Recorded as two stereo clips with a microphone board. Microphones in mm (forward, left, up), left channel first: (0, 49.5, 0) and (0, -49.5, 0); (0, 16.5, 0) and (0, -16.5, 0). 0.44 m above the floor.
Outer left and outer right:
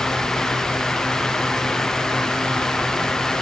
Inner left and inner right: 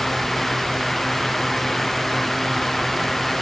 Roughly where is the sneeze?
No sneeze in this recording.